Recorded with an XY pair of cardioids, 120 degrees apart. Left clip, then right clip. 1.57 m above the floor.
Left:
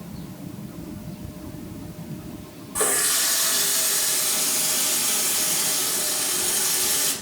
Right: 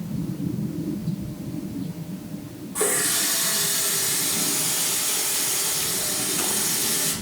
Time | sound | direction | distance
2.8 | a running tap | 30° left | 2 m